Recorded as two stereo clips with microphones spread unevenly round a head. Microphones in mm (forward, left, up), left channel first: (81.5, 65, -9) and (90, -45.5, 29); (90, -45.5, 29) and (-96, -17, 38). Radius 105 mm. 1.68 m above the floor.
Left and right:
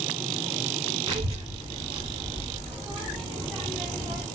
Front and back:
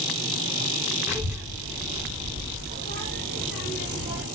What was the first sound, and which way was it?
A child speaking, 100° right.